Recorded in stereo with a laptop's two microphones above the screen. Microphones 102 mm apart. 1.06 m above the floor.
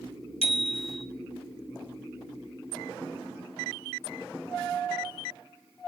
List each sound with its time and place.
0.4 s a bicycle bell: 70° left (ahead or behind), 3 m